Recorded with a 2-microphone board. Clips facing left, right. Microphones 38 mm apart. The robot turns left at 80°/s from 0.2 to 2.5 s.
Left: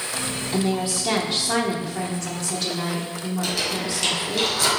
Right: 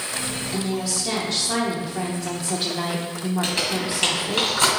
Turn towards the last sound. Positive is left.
turn(degrees=-40)  # may be behind; listen again after turning